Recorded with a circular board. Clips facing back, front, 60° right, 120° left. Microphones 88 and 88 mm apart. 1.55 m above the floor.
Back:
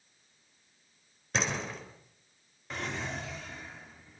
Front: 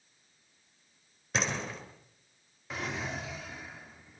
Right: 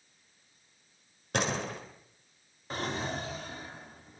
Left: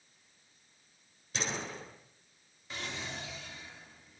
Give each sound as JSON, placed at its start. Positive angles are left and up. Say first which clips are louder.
{"t": 1.3, "sound": "a door slam", "louder": "even, right 6 dB", "azimuth_deg": -90, "distance_m": 4.0}
{"t": 2.7, "sound": "a drawer", "louder": "even, right 7 dB", "azimuth_deg": -85, "distance_m": 1.4}